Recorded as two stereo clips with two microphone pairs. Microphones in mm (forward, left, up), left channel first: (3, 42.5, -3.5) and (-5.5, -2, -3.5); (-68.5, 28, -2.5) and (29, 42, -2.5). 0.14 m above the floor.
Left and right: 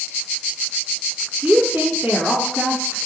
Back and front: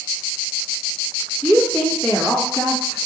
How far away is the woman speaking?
About 1.2 m.